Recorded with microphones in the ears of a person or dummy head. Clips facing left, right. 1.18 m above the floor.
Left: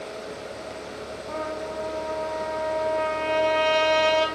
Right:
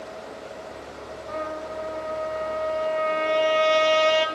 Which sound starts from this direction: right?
A trumpet, at 1.3 s.